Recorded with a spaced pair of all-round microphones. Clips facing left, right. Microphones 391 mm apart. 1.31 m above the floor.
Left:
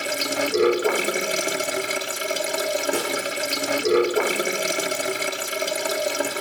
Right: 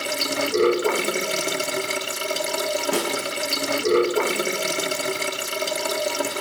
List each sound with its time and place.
0.0 s running water: 5° right (ahead or behind), 0.8 m
2.9 s a snare drum: 85° right, 6.5 m